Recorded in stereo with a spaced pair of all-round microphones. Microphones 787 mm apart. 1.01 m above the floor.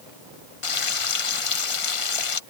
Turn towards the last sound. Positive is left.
turn(degrees=45)  # may be behind; listen again after turning